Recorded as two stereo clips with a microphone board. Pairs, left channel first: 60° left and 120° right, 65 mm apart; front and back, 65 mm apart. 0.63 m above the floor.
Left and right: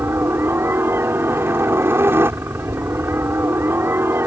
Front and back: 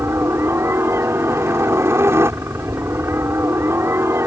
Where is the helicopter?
155° right.